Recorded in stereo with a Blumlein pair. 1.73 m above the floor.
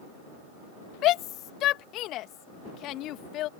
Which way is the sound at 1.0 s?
35° left.